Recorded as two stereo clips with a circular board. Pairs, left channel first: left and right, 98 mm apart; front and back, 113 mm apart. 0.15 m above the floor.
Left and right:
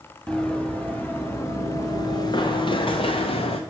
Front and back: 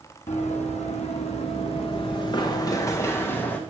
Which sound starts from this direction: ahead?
Running footsteps, at 0.3 s.